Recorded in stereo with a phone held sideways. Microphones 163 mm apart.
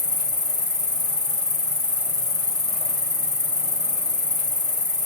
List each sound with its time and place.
0.0 s an insect: 25° right (ahead or behind), 1.5 m